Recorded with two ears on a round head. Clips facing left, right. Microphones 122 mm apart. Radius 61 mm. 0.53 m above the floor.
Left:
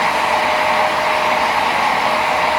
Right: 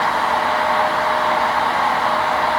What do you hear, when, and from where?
Only background noise.